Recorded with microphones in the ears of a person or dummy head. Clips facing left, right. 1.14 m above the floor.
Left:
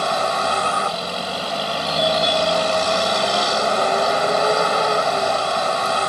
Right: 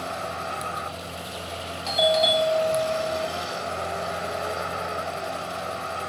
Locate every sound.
0.0 s a vehicle: 80° left
1.9 s a doorbell: 5° right (ahead or behind)